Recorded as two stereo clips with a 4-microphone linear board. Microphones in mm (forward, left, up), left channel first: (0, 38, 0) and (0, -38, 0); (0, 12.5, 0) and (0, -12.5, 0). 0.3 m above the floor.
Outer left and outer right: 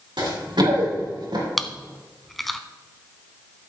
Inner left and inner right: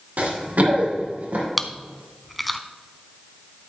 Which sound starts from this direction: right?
Running footsteps, at 0.2 s.